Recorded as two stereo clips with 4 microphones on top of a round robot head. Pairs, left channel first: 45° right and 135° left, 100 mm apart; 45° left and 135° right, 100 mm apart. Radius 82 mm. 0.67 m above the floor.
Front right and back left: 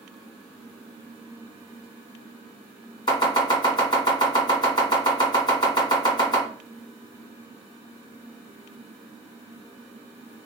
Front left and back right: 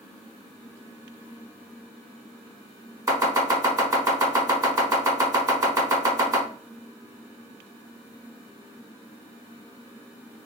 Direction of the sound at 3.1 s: 80° right.